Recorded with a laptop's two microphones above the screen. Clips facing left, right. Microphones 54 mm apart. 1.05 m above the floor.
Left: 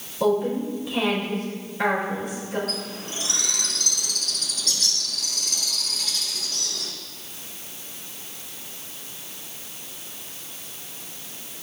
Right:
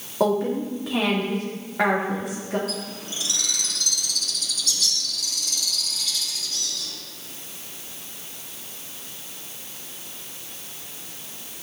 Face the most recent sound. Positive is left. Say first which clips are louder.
# even
turn(degrees=45)  # may be behind; listen again after turning